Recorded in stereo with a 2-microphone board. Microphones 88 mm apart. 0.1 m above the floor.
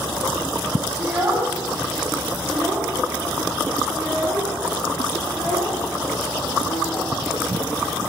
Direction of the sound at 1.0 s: 15° right (ahead or behind).